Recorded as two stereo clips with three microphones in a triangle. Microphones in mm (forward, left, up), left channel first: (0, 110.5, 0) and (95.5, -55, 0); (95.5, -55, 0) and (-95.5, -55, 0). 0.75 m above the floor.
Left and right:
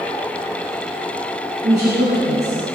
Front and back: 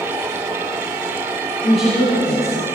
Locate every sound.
1.6 s a woman speaking: 50° right, 4.5 m